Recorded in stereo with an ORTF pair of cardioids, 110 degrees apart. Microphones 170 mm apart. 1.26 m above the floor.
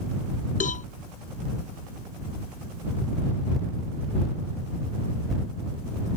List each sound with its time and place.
0.6 s a cowbell: 50° left